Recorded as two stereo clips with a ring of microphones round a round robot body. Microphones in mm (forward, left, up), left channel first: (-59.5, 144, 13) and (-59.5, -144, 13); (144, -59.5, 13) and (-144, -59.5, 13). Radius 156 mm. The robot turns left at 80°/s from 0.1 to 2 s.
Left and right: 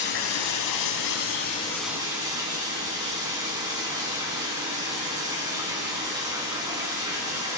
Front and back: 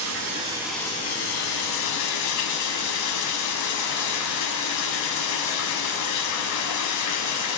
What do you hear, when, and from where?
0.0 s running water: 140° left, 0.9 m; by 7.6 s 15° right, 0.9 m